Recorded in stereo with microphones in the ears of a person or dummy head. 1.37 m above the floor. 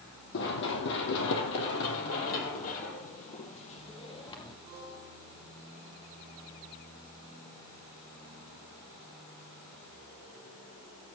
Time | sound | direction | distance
0.3 | running footsteps | 55° left (ahead or behind) | 2.5 m